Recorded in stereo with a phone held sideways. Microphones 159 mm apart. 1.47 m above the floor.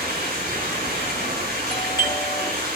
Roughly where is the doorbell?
Left.